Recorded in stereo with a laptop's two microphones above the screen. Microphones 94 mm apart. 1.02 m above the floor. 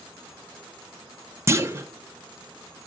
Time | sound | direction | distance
1.5 | a clunk | 30° right (ahead or behind) | 0.6 m